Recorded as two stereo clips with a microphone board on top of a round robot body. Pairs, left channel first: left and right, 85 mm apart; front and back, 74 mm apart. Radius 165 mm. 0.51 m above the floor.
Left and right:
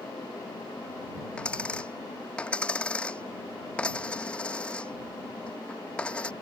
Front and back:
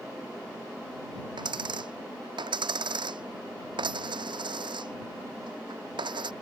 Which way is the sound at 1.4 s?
170° left.